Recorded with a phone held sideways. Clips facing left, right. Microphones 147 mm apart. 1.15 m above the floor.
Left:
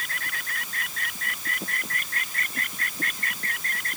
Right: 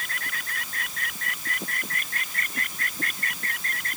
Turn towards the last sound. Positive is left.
No sound to turn to.